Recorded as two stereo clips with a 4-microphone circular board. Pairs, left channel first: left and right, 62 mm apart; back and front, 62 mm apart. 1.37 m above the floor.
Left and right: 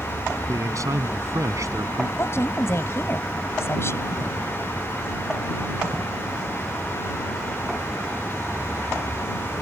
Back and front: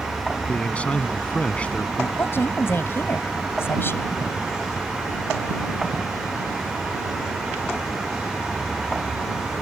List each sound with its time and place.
0.5 s a man speaking: 115° right
2.2 s a woman speaking: 130° left